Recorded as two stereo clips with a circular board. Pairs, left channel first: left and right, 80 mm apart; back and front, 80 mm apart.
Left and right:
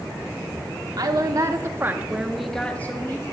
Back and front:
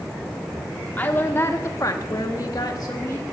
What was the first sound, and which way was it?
A woman speaking, 115° right.